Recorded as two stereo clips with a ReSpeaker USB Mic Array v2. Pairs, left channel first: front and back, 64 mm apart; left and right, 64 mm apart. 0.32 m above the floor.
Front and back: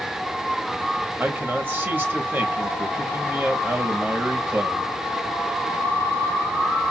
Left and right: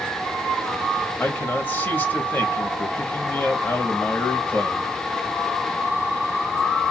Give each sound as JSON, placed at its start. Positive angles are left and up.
{"t": 1.2, "sound": "a man speaking", "azimuth_deg": 140, "distance_m": 1.1}